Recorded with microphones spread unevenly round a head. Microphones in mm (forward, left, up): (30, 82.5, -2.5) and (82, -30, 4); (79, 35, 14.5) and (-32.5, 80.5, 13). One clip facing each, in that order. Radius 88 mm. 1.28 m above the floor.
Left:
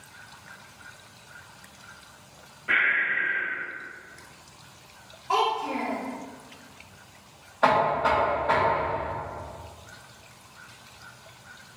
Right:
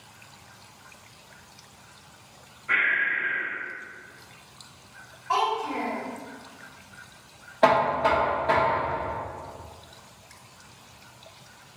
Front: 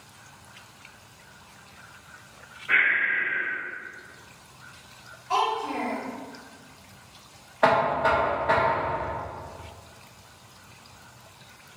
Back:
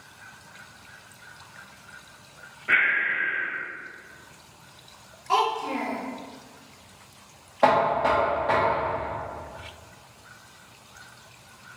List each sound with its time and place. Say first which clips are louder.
2.7 s breathing: even, even; 145° left, 1.4 m
5.3 s a child speaking: left 1 dB, back 1 dB; straight behind, 1.5 m
7.6 s knocking: right 1 dB, back 1 dB; 130° right, 1.3 m